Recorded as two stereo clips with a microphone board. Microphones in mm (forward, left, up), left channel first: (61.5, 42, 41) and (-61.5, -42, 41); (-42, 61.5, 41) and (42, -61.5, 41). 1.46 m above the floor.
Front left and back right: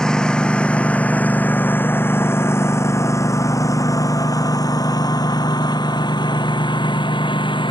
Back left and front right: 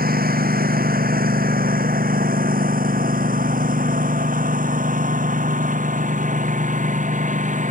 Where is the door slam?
I don't hear a door slam.